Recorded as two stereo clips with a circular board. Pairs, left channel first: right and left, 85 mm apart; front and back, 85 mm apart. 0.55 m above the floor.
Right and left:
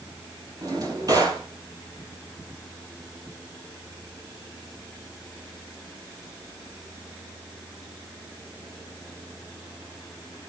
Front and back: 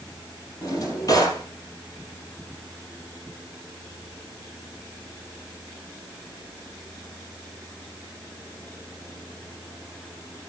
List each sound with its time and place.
0.6 s a drawer: 45° left, 5 m